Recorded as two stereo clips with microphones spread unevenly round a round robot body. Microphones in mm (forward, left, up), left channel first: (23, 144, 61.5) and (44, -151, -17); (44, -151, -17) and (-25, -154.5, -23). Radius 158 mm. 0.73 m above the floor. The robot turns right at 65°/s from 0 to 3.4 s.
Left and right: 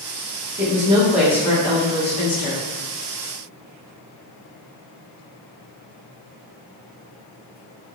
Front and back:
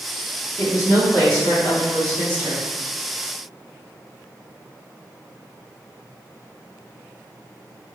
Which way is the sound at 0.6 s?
50° right.